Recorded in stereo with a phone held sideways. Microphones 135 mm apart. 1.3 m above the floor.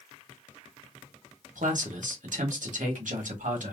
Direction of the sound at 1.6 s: 75° right (ahead or behind).